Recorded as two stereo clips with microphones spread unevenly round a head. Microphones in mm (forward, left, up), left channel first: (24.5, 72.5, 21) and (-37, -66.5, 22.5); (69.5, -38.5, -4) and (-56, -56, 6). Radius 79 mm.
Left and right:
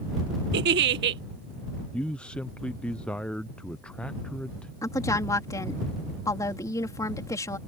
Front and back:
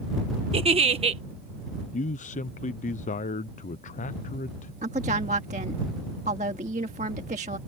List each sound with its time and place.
0.5 s a giggle: 125° right
1.9 s a man speaking: 20° right
4.8 s a woman speaking: 135° left